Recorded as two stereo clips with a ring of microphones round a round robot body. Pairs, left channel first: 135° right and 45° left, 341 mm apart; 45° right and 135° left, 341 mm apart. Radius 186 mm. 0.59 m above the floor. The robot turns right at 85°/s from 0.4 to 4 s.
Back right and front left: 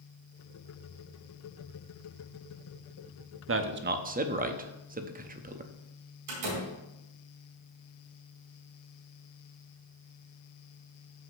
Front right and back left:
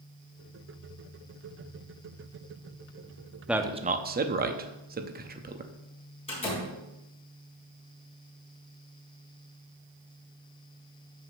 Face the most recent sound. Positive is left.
turn(degrees=30)